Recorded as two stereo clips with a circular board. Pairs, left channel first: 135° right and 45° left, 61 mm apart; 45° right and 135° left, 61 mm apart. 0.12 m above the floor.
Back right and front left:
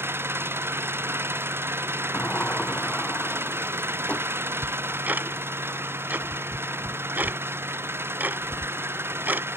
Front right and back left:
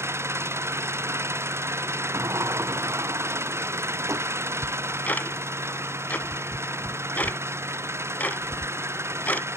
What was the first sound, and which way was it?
An engine running, 95° left.